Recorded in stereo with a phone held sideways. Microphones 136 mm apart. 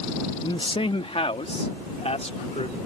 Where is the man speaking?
35° left (ahead or behind); by 2.8 s 55° left (ahead or behind).